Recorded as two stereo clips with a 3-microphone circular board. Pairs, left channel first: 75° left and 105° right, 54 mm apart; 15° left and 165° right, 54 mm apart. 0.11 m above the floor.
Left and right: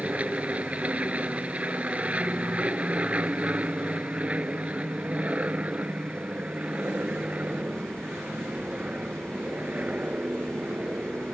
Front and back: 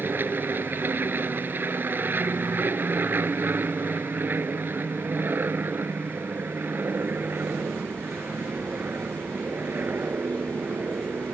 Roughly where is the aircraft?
Behind right.